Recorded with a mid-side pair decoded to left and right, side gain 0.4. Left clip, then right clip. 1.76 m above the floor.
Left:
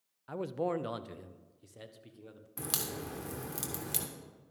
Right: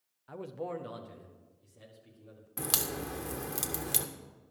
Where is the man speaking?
40° left, 0.6 m; by 2.5 s 75° left, 1.7 m.